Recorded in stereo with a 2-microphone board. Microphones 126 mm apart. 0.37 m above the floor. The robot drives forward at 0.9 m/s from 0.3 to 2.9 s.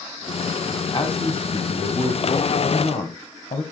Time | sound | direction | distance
0.9 | a man speaking | 40° left (ahead or behind) | 2.5 m